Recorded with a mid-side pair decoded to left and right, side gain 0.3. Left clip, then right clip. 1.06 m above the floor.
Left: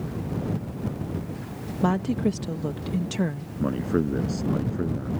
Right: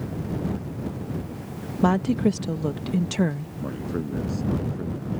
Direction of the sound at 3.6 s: 60° left.